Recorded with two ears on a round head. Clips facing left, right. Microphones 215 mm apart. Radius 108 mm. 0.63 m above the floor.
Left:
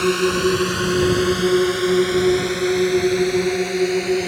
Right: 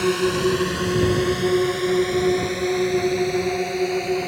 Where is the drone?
10° left (ahead or behind); by 4.3 s 25° left (ahead or behind).